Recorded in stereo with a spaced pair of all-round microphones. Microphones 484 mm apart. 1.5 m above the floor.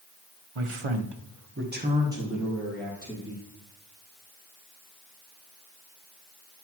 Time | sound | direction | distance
0.6 | a man speaking | 85° right | 0.9 m